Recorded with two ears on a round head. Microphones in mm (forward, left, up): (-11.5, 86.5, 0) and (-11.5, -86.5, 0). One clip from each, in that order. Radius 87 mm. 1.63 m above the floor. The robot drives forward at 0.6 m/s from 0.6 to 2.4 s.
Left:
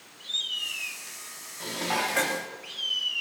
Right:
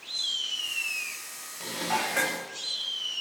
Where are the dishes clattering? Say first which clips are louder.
Left 1 dB; centre (ahead or behind), 2.5 m.